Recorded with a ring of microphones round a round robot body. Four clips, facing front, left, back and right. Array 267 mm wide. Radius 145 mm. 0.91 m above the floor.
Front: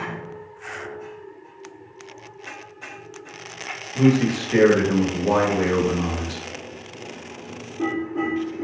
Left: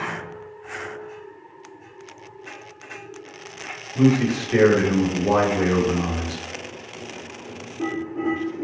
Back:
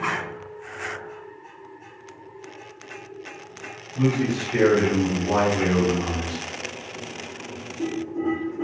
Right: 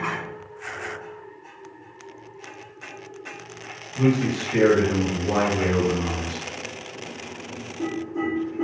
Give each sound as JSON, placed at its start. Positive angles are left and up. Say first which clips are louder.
{"t": 4.0, "sound": "a man speaking", "louder": "left 3 dB, front 5 dB", "azimuth_deg": 50, "distance_m": 1.4}